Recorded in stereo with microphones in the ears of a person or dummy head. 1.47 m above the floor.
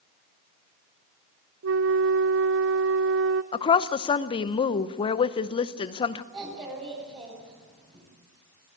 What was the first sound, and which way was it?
A flute, 65° right (ahead or behind).